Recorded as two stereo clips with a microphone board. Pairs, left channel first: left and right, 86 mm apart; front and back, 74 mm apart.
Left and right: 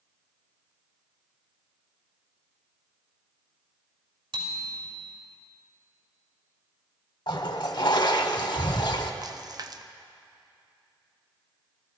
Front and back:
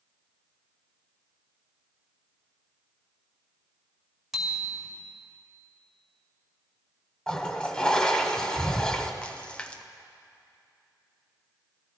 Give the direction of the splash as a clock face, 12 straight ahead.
2 o'clock.